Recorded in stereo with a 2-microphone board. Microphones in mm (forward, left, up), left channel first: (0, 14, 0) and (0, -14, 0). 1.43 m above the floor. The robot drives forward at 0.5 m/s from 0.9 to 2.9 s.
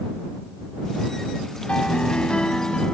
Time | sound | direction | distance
1.7 | a piano | 35° left (ahead or behind) | ?